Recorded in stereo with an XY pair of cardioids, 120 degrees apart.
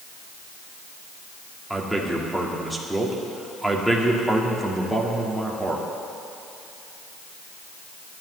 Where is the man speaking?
Straight ahead, 1.9 m.